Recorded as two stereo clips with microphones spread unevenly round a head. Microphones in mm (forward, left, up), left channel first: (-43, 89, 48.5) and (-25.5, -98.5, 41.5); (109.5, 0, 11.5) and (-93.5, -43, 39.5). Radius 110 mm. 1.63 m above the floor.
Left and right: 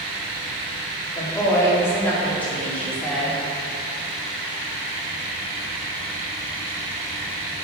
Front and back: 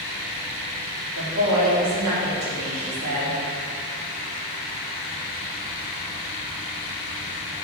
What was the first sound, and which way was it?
A woman speaking, 165° left.